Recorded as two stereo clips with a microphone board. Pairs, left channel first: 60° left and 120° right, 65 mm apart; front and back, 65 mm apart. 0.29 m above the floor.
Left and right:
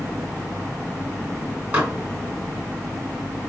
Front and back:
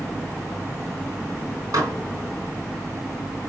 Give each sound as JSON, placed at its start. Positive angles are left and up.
{"t": 1.7, "sound": "dishes clattering", "azimuth_deg": 175, "distance_m": 2.0}